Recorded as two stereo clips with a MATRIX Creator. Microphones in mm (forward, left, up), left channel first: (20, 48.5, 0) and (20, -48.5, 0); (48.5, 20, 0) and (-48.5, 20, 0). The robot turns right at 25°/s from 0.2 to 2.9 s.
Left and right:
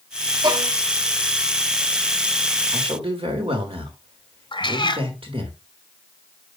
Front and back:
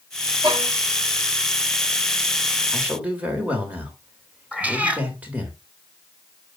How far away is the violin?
About 3 m.